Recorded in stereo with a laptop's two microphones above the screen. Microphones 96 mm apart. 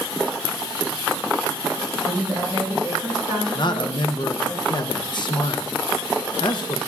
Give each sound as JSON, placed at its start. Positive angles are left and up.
{"t": 2.0, "sound": "a woman speaking", "side_deg": 45, "distance_m": 4.5}
{"t": 3.5, "sound": "a man speaking", "side_deg": 50, "distance_m": 0.6}